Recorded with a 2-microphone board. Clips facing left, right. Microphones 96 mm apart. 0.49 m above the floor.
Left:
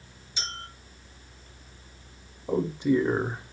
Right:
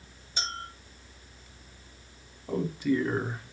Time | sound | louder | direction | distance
0.4 | a clink | right 3 dB | 50° right (ahead or behind) | 1.5 m
2.5 | a man speaking | left 3 dB | 25° left (ahead or behind) | 0.7 m